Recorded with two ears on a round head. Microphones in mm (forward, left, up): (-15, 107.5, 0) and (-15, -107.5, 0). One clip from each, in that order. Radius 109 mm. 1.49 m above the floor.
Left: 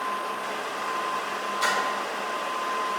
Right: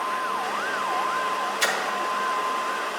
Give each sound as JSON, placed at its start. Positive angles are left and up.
{"t": 1.6, "sound": "a splash", "side_deg": -55, "distance_m": 1.6}